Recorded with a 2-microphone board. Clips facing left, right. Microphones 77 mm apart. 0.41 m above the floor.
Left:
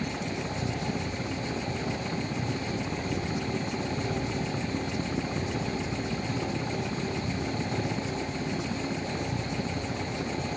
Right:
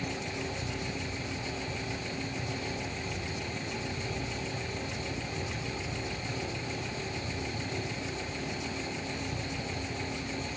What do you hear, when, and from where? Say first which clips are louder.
0.0 s a helicopter: left 3 dB; 70° left (ahead or behind)